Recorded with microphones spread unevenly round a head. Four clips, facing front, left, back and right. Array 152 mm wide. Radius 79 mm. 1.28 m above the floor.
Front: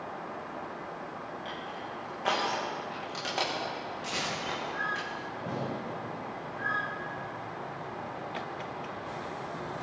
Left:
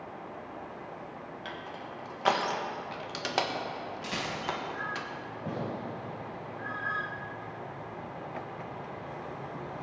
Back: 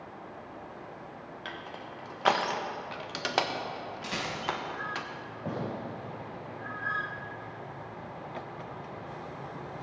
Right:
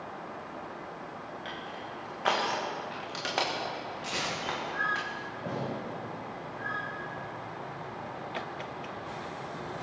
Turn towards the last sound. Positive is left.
turn(degrees=-130)